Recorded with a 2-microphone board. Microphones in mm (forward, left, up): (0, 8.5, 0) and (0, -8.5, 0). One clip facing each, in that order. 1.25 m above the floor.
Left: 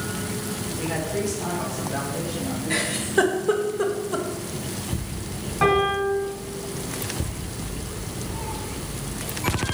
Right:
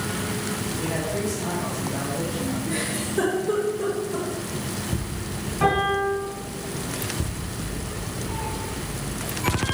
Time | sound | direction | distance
0.8 | a man speaking | 20° left (ahead or behind) | 4 m
2.7 | a giggle | 45° left (ahead or behind) | 1.6 m
5.6 | a piano | 15° left (ahead or behind) | 4.5 m
8.3 | a cat meowing | 20° right (ahead or behind) | 1.4 m